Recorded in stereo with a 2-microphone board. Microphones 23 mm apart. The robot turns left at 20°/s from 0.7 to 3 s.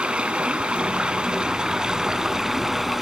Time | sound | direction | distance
0.0 | running water | 125° right | 0.8 m